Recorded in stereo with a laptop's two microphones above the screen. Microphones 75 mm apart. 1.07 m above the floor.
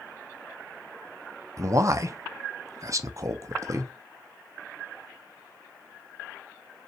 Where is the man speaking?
45° right (ahead or behind), 0.6 m.